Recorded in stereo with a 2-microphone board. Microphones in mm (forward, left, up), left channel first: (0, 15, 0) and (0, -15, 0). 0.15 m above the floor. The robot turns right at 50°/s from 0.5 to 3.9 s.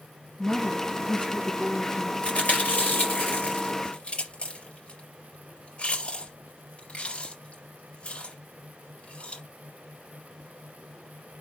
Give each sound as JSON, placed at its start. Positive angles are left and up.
{"t": 0.4, "sound": "a woman speaking", "azimuth_deg": 35, "distance_m": 1.8}
{"t": 2.2, "sound": "chewing", "side_deg": 45, "distance_m": 3.5}